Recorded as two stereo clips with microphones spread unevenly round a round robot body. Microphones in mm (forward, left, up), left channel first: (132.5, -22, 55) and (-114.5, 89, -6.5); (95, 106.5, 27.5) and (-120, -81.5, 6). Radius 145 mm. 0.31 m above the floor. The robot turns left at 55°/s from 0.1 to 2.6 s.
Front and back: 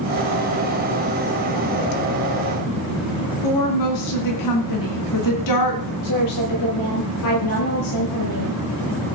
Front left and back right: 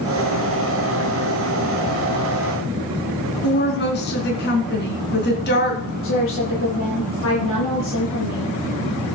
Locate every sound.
3.4 s a woman speaking: 15° right, 3.5 m
6.0 s a woman speaking: 10° right, 7.5 m